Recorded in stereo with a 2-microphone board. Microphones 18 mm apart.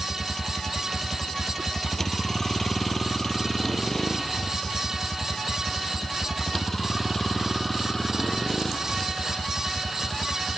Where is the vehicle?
20° left (ahead or behind); by 10.6 s 10° left (ahead or behind).